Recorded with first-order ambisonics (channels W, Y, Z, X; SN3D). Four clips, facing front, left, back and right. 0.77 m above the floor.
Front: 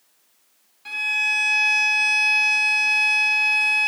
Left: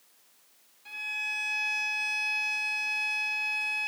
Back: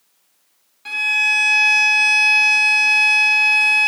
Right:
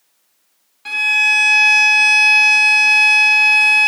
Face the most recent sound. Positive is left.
turn(degrees=-110)